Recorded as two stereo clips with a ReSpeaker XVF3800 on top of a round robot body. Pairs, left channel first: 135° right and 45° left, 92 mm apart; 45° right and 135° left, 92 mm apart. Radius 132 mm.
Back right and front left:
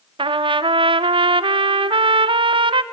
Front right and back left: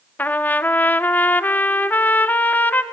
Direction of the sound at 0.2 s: 25° left.